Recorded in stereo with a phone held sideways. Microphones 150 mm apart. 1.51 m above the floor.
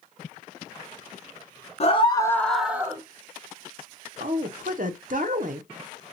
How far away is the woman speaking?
About 0.6 m.